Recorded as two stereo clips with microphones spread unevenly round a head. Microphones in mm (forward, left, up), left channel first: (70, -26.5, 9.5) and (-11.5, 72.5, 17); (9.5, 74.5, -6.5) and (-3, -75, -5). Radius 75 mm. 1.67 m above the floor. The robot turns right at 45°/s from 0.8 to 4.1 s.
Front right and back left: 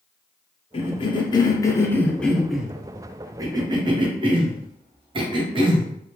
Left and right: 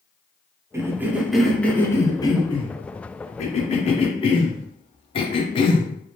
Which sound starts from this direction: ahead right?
A cough, at 0.7 s.